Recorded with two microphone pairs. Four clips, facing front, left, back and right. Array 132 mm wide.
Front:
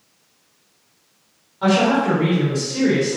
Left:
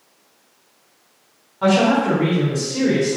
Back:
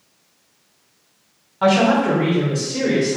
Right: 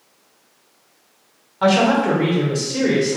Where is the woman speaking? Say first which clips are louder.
Even, back 2 dB; 115° right, 1.4 m; by 3.2 s 75° right, 1.5 m.